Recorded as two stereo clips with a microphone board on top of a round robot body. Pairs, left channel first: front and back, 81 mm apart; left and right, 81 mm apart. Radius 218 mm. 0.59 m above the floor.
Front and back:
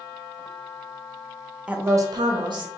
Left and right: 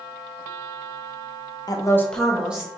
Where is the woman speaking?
105° left, 0.7 m; by 2.7 s 160° right, 1.1 m.